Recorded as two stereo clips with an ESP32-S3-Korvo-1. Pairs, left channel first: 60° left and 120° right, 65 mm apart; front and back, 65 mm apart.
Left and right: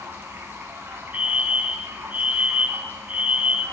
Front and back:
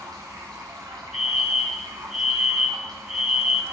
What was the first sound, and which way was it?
Running water, straight behind.